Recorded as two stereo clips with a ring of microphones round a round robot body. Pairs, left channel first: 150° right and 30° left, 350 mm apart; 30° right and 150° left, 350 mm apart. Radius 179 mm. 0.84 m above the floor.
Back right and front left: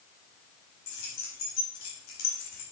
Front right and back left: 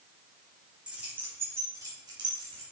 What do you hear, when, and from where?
0.9 s keys jangling: 125° right, 5 m; by 2.6 s 135° right, 4 m